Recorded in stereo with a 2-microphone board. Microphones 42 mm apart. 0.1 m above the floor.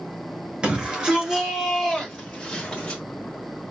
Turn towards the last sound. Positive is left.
turn(degrees=20)  # may be behind; listen again after turning